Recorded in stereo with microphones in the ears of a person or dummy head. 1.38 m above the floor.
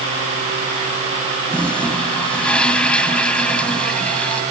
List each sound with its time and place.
1.5 s a toilet flushing: 5° left (ahead or behind)